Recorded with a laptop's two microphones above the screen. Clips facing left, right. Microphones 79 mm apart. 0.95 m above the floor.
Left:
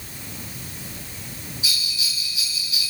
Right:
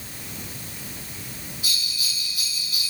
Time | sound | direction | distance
1.6 | a bell | 60° right (ahead or behind) | 5 m